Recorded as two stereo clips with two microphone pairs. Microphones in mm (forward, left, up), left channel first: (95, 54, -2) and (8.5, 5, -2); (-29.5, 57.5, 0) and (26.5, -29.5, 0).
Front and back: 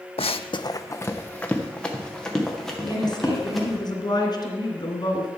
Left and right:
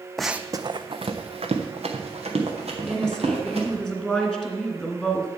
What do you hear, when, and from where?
0.2 s running footsteps: 40° left, 0.5 m; by 3.8 s 60° right, 3.5 m
2.8 s a woman speaking: 40° left, 2 m